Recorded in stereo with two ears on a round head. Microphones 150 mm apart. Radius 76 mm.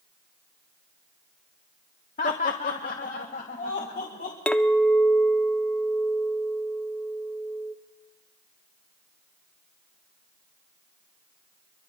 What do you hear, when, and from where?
2.2 s laughter: 45° left (ahead or behind), 0.7 m; by 4.4 s 55° left (ahead or behind), 2 m
4.5 s a clink: 5° left (ahead or behind), 0.5 m